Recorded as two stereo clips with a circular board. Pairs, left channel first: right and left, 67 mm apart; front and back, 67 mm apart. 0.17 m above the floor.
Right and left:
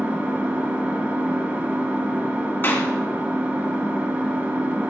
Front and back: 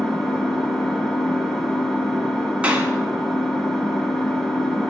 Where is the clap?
120° right, 1.0 m.